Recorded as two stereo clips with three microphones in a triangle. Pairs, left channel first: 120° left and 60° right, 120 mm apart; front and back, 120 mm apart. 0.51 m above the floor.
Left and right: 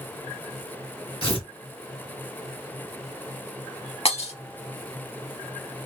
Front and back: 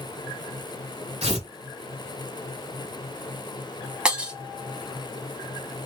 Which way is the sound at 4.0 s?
100° left.